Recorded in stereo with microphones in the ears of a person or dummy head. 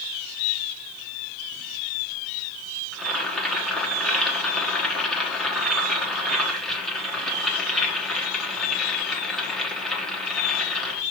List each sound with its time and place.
2.9 s boiling: centre (ahead or behind), 1.1 m